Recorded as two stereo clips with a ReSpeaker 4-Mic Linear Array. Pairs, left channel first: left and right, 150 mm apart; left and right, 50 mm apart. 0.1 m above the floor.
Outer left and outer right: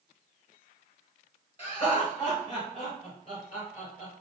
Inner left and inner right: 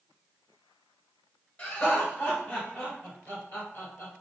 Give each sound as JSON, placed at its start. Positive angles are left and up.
{"t": 1.6, "sound": "laughter", "side_deg": 25, "distance_m": 1.2}